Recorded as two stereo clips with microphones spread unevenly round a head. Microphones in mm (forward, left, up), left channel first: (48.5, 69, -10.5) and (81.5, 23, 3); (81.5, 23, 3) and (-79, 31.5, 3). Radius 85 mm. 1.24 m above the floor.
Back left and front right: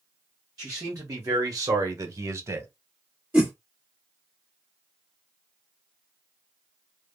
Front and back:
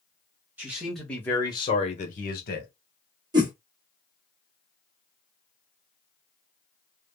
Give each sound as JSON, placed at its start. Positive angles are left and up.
{"t": 0.6, "sound": "a man speaking", "azimuth_deg": -105, "distance_m": 1.0}
{"t": 3.3, "sound": "a whoosh", "azimuth_deg": -120, "distance_m": 1.1}